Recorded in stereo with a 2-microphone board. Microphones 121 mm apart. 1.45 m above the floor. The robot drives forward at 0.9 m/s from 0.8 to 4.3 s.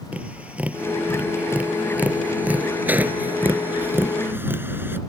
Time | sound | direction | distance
0.1 | tapping | 10° right (ahead or behind) | ?